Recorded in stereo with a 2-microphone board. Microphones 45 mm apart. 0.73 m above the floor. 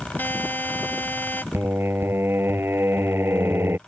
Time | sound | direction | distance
0.2 | a buzzer | 45° left (ahead or behind) | ?
1.5 | singing | 60° right (ahead or behind) | ?